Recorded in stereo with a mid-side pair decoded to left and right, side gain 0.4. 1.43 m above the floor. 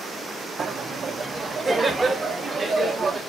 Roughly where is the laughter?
Ahead right.